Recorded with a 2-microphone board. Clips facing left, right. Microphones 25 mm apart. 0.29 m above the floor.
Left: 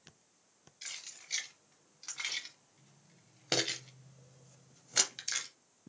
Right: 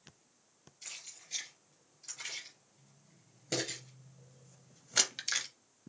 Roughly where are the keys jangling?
Left.